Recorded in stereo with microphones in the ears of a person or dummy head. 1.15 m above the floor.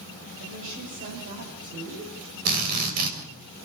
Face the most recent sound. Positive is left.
turn(degrees=-50)  # may be behind; listen again after turning